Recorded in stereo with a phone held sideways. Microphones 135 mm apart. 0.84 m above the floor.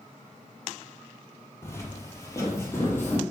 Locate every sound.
1.6 s footsteps: 20° left (ahead or behind), 0.9 m; by 3.2 s 15° left (ahead or behind), 1.3 m